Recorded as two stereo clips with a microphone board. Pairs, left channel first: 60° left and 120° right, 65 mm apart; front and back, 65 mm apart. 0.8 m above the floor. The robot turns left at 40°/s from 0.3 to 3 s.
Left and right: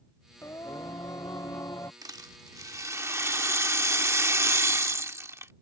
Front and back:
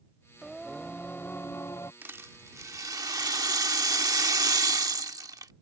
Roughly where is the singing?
Left.